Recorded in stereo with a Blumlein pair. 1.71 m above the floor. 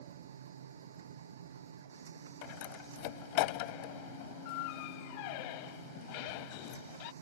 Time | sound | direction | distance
0.0 | a machine running | 65° right | ?
2.4 | a door slam | 45° left | ?